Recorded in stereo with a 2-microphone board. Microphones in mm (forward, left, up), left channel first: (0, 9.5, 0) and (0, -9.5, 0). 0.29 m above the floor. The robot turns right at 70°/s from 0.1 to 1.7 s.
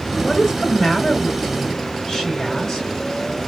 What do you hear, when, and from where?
0.2 s a woman speaking: 35° left, 4 m; by 2.9 s 140° left, 4 m